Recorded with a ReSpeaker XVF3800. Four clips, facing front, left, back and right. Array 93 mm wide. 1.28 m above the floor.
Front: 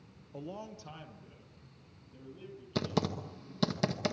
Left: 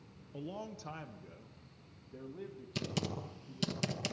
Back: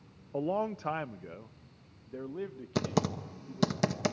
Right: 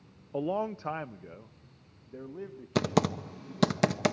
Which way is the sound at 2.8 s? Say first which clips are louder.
Right 12 dB, back 2 dB; 100° right.